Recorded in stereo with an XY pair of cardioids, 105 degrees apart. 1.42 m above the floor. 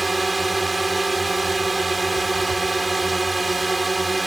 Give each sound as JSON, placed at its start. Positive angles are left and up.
{"t": 0.0, "sound": "a drone", "azimuth_deg": -20}